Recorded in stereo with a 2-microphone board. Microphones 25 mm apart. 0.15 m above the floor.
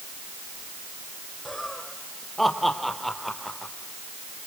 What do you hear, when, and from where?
1.4 s laughter: 5° left (ahead or behind), 6 m